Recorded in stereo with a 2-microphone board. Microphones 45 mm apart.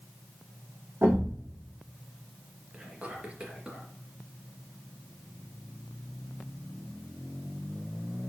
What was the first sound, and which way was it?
A thud, 70° right (ahead or behind).